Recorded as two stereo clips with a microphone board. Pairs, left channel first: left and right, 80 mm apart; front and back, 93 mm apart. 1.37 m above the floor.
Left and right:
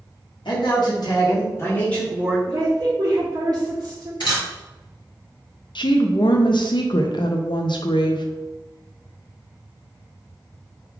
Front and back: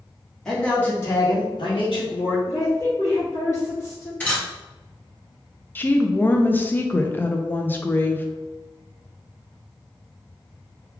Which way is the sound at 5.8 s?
70° left.